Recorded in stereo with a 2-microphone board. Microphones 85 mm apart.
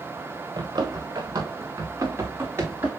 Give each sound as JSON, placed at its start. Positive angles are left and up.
{"t": 0.6, "sound": "running footsteps", "side_deg": -55, "distance_m": 2.5}